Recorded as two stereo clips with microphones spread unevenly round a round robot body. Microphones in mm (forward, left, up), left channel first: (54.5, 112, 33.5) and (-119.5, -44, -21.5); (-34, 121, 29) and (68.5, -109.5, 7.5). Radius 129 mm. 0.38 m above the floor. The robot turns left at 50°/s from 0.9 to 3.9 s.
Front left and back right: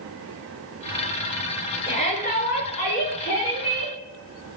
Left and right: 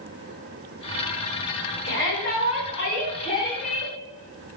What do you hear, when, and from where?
1.9 s a shout: 115° left, 5 m; by 4.0 s 15° left, 5 m